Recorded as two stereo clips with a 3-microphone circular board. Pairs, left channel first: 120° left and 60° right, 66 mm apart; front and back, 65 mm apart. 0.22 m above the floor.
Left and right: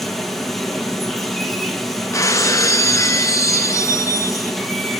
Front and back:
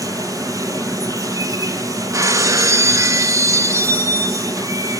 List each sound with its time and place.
0.0 s running water: 155° right, 1.5 m
2.1 s breaking glass: 150° left, 0.8 m